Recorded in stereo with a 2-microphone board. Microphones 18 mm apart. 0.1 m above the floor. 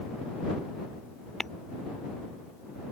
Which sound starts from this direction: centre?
Tapping, at 1.4 s.